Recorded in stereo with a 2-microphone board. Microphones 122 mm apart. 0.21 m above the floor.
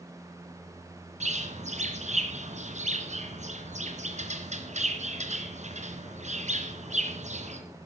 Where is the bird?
65° right (ahead or behind), 2.5 m.